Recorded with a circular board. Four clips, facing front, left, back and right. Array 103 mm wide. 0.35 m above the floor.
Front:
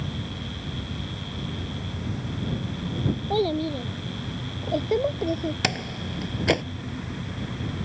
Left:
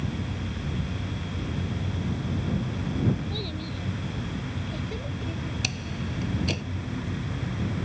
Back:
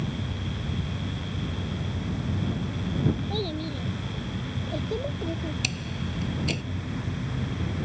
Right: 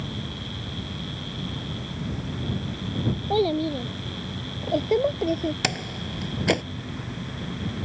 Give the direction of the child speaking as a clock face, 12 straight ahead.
2 o'clock.